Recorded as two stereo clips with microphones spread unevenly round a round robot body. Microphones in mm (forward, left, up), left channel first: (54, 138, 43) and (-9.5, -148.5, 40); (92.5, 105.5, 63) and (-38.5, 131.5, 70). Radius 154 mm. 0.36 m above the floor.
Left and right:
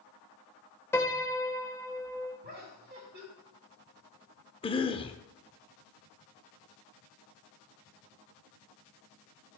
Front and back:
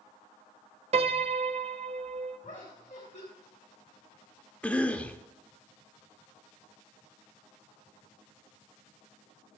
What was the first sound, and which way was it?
A piano, 155° left.